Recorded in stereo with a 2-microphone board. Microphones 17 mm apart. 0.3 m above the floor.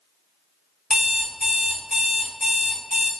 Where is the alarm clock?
45° right (ahead or behind), 1.2 m.